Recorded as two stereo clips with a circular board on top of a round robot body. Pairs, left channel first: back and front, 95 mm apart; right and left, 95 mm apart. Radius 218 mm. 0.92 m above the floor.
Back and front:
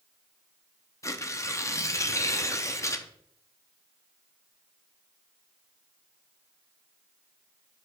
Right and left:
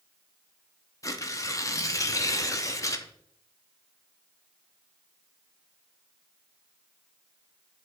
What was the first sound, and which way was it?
Tearing paper, 130° right.